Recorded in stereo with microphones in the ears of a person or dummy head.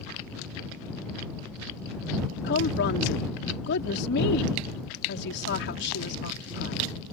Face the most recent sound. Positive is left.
turn(degrees=70)  # may be behind; listen again after turning